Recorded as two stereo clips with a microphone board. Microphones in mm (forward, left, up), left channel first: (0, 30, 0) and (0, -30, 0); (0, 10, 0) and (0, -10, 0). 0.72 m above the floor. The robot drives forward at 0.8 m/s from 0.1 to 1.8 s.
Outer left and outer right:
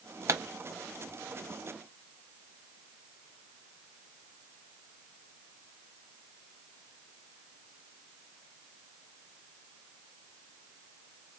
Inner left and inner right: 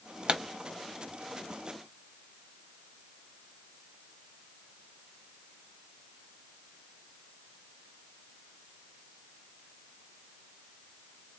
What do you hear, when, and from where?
0.3 s a pop: 50° right (ahead or behind), 0.6 m; by 0.4 s 45° right (ahead or behind), 0.6 m